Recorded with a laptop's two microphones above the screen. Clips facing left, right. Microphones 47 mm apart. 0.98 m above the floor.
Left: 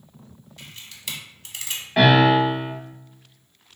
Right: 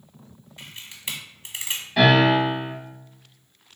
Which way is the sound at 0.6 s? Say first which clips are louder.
Right 2 dB; 25° right (ahead or behind).